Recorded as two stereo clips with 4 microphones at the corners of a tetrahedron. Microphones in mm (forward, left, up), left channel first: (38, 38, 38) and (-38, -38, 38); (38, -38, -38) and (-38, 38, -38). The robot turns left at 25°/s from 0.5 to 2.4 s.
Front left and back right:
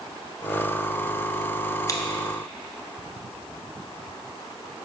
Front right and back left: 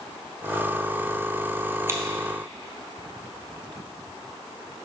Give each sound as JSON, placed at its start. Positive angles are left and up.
{"t": 1.9, "sound": "scissors", "azimuth_deg": 85, "distance_m": 1.1}